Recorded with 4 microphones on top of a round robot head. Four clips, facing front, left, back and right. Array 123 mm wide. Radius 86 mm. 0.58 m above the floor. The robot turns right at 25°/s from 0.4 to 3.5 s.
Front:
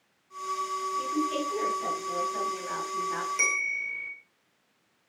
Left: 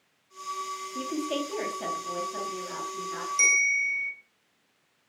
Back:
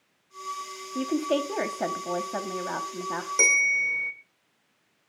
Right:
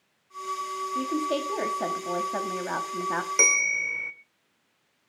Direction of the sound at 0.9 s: 175° right.